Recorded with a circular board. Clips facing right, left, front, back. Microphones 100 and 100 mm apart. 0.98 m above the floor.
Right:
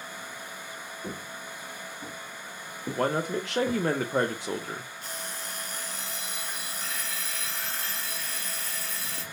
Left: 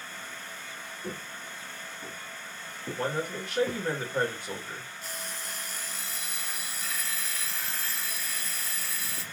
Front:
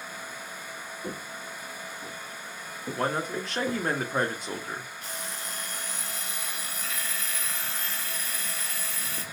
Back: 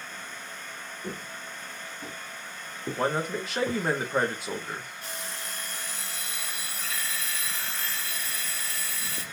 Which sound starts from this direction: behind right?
An alarm clock, at 5.0 s.